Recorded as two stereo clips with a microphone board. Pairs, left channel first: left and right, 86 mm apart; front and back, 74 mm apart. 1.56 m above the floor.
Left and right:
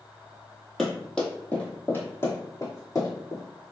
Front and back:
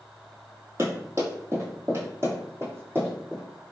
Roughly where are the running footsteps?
Behind.